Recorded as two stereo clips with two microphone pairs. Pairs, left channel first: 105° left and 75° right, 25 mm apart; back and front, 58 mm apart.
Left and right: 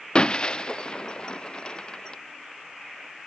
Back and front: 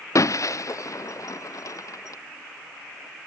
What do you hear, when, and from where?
0.1 s breaking glass: 155° left